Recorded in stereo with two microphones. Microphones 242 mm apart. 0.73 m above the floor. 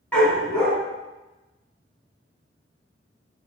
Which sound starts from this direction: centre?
A dog barking, at 0.1 s.